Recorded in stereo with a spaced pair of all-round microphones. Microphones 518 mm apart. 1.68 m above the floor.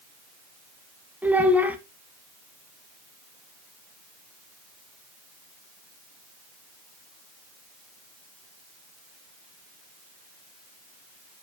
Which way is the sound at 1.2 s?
5° right (ahead or behind).